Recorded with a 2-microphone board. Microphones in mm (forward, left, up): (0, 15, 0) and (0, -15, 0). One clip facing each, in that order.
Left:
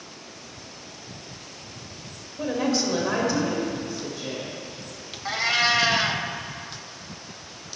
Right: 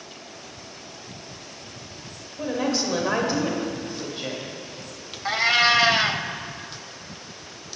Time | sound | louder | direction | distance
2.4 | a woman speaking | left 1 dB | 5° left (ahead or behind) | 2.5 m
5.2 | a cat meowing | right 3 dB | 20° right (ahead or behind) | 0.6 m